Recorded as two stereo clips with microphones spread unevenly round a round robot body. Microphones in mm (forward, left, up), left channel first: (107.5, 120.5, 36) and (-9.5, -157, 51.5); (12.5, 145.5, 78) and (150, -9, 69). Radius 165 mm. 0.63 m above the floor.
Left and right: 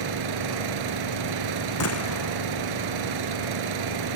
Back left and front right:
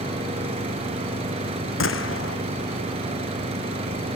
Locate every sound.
0.0 s an engine running: 120° right
1.8 s a gunshot: 115° left